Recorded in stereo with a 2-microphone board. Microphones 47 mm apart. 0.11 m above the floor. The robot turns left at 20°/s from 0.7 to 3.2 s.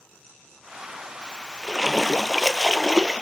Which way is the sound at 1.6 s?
15° left.